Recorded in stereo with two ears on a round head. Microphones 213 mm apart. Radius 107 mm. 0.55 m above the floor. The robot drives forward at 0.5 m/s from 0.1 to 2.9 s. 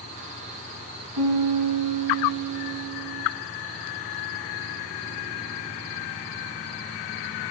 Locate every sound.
1.2 s a piano: 80° right, 1.0 m; by 3.2 s 50° right (ahead or behind), 1.3 m